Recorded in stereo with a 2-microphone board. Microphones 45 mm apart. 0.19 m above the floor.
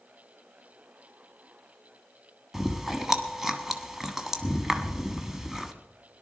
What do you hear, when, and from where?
2.5 s chewing: 10° right (ahead or behind), 1.1 m